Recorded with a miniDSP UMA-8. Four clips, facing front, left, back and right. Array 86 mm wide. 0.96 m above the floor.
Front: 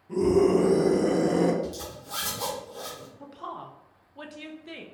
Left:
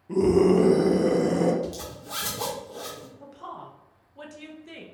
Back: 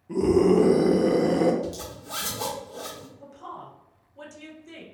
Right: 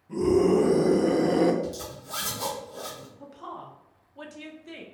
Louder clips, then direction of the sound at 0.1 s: Left 2 dB, back 2 dB; 115° left.